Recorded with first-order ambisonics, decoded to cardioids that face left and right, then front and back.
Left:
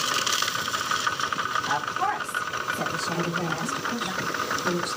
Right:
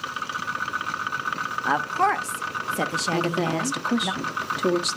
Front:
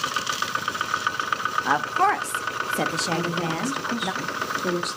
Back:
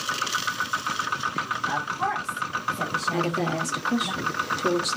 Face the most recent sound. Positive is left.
turn(degrees=-100)